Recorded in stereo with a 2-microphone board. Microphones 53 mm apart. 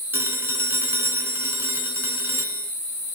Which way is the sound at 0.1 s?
50° right (ahead or behind).